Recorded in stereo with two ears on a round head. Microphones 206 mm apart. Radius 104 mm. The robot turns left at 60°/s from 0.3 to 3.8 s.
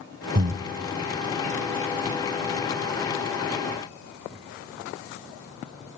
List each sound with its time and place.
0.3 s breathing: 40° right (ahead or behind), 0.6 m; by 0.6 s 30° right (ahead or behind), 0.6 m